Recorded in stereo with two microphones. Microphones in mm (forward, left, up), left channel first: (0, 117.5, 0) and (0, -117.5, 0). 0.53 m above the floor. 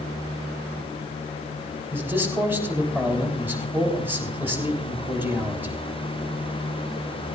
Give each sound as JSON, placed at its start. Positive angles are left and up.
{"t": 1.9, "sound": "a man speaking", "side_deg": -10, "distance_m": 3.5}